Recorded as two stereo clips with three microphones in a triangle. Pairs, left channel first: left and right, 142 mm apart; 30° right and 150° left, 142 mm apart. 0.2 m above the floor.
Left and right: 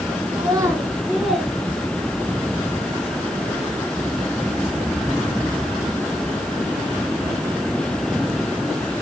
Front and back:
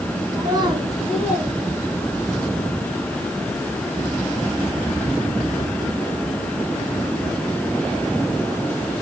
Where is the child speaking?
145° right, 1.4 m; by 2.4 s 170° left, 2.5 m.